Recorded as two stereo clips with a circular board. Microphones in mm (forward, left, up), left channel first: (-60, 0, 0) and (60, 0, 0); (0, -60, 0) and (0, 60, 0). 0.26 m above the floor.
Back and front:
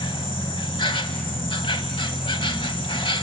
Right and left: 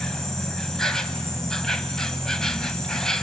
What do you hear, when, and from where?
0.0 s an insect: 175° right, 1.1 m